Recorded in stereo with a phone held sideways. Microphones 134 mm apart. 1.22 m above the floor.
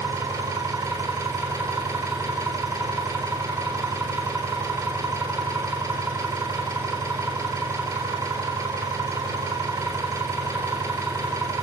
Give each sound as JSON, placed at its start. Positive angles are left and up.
{"t": 0.0, "sound": "an engine running", "side_deg": -20, "distance_m": 3.5}